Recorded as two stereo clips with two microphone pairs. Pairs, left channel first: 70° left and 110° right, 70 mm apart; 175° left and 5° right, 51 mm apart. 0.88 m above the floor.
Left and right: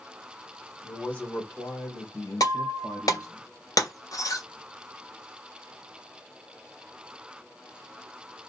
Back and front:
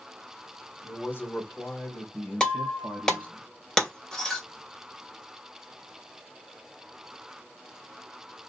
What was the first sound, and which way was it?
A man speaking, 145° left.